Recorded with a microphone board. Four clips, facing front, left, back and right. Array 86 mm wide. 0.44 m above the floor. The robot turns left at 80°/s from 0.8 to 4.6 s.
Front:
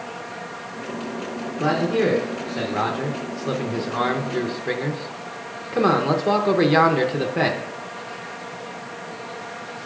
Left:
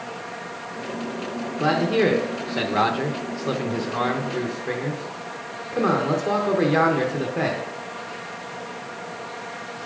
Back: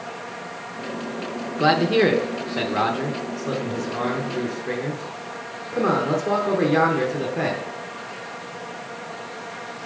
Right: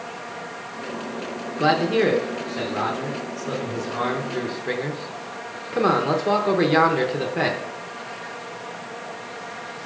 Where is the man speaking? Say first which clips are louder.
Right 1 dB, back 3 dB; 150° right, 0.8 m; by 7.6 s 30° right, 0.8 m.